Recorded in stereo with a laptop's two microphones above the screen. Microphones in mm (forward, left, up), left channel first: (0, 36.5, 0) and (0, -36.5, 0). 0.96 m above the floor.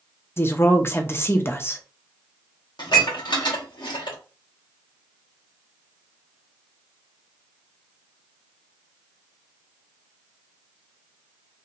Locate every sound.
0.4 s a woman speaking: 30° left (ahead or behind), 0.6 m
2.8 s dishes clattering: 70° left (ahead or behind), 0.8 m